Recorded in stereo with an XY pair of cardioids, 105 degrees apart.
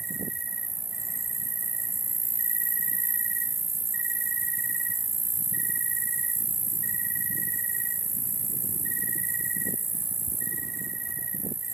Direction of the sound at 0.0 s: 35° right.